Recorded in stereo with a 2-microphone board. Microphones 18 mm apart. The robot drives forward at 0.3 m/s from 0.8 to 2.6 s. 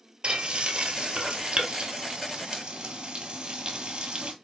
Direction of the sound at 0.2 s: 60° right (ahead or behind).